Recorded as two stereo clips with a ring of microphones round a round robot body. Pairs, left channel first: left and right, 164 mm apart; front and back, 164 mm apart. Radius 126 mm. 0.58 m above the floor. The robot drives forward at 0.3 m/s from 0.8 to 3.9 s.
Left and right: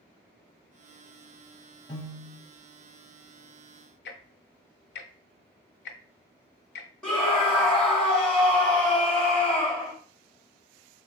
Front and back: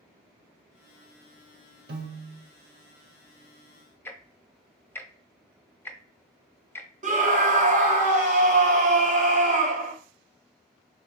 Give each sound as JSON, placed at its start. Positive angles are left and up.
{"t": 1.9, "sound": "a piano", "azimuth_deg": 165, "distance_m": 0.6}
{"t": 4.0, "sound": "ticking", "azimuth_deg": 80, "distance_m": 0.5}
{"t": 7.0, "sound": "a scream", "azimuth_deg": 175, "distance_m": 0.9}